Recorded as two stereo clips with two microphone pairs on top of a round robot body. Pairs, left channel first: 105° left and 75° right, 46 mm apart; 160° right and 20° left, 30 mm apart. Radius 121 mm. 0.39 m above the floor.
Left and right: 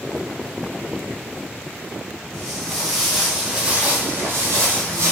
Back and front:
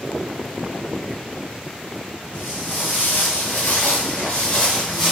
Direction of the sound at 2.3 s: 175° right.